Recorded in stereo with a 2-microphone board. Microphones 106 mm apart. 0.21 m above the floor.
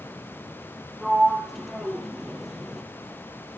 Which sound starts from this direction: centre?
A sliding door, at 1.0 s.